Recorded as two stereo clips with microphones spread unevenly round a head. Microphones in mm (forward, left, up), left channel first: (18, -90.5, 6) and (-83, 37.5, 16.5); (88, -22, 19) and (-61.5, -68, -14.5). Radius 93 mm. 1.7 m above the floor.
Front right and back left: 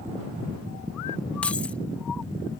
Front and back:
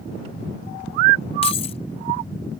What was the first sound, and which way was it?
Keys jangling, 30° left.